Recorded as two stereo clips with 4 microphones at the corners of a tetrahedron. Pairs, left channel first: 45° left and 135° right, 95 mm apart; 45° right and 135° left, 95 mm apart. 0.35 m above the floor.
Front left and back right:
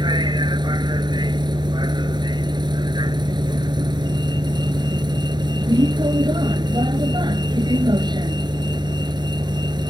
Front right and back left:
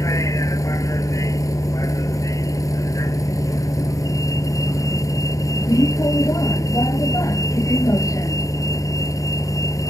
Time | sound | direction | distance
0.0 | a vehicle | 100° right | ?